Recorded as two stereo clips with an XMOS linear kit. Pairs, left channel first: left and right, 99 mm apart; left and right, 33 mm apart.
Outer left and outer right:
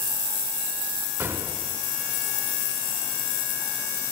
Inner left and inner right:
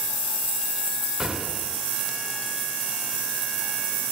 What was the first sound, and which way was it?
An explosion, 20° right (ahead or behind).